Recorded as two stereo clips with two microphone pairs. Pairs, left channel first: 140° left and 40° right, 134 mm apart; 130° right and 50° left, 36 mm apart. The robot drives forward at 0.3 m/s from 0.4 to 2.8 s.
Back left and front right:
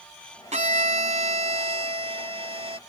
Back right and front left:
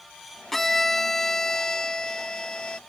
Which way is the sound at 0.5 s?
50° right.